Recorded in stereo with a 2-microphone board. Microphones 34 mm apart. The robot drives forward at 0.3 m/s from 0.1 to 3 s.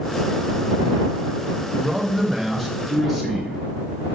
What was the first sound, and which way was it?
A man speaking, centre (ahead or behind).